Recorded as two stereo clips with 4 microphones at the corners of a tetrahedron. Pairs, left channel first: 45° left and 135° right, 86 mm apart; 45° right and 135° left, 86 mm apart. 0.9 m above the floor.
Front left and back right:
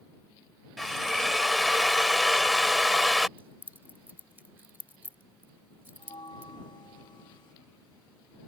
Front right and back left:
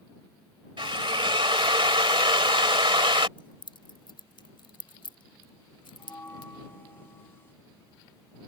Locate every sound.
0.8 s a drill: 135° left
3.4 s keys jangling: 65° right
6.0 s a bell: 20° left